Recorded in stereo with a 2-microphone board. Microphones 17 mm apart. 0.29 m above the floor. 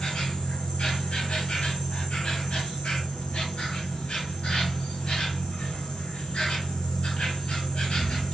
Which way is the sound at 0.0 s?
85° left.